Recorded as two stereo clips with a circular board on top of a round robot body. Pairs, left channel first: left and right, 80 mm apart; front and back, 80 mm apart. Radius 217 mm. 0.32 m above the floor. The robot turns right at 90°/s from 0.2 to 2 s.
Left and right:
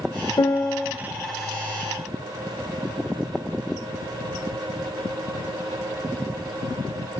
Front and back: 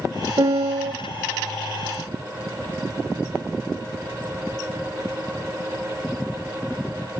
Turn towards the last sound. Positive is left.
turn(degrees=-80)